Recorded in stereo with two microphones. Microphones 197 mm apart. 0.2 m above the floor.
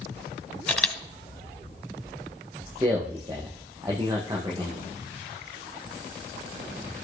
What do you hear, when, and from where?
0.7 s a camera shutter: 5° left (ahead or behind), 1.4 m
2.7 s a man speaking: 20° right (ahead or behind), 6.5 m